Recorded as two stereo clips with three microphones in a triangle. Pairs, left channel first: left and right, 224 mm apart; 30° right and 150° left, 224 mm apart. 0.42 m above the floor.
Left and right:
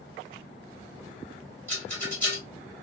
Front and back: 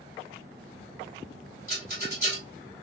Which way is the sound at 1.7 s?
165° left.